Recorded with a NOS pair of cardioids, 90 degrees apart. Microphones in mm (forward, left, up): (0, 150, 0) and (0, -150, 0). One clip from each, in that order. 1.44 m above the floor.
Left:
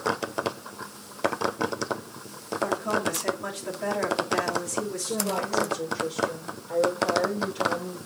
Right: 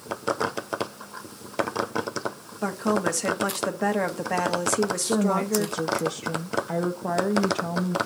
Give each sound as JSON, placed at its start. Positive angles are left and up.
{"t": 2.6, "sound": "a woman speaking", "azimuth_deg": -55, "distance_m": 1.1}
{"t": 5.0, "sound": "a woman speaking", "azimuth_deg": -65, "distance_m": 0.7}